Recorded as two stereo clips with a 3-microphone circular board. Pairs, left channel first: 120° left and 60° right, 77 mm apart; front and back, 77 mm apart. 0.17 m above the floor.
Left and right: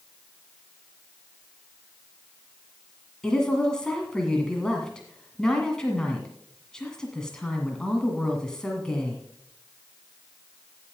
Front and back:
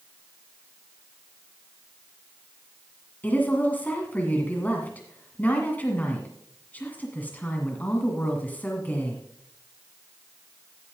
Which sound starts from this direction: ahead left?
A woman speaking, at 3.2 s.